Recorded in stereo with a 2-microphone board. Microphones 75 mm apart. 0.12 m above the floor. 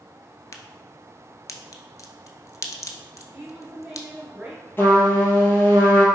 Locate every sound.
0.5 s a crack: 50° left (ahead or behind), 0.5 m
3.3 s a woman speaking: 10° right (ahead or behind), 2 m
4.8 s a trumpet: 30° left (ahead or behind), 1.1 m